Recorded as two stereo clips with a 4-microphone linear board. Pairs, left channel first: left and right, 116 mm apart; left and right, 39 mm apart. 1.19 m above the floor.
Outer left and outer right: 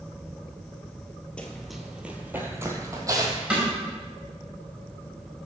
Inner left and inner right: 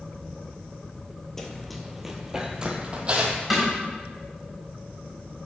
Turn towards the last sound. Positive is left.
turn(degrees=-5)  # may be behind; listen again after turning